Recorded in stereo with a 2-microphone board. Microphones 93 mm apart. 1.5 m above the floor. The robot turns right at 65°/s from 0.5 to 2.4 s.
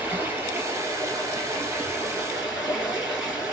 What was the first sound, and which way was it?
Running water, 130° right.